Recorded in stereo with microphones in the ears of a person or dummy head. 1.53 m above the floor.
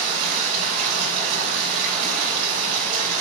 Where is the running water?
40° right (ahead or behind), 3.5 m.